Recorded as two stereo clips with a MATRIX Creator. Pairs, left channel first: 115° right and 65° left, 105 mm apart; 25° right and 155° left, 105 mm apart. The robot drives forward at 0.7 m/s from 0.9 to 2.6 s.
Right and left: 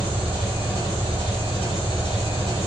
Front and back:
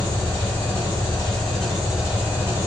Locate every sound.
0.0 s an engine running: 50° left, 1.8 m; by 2.7 s 95° left, 1.4 m